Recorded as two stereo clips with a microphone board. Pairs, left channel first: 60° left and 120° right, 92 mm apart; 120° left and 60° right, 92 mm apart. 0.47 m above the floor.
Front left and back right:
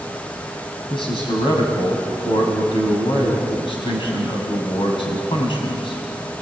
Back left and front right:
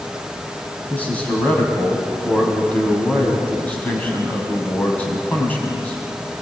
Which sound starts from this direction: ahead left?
A man speaking, at 0.9 s.